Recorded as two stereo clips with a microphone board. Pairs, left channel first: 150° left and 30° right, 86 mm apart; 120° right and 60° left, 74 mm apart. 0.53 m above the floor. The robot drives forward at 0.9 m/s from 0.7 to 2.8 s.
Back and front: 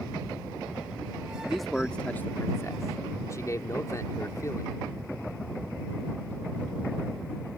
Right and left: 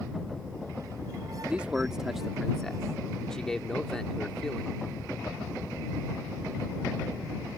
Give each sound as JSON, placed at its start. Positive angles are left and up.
{"t": 1.4, "sound": "a man speaking", "azimuth_deg": 45}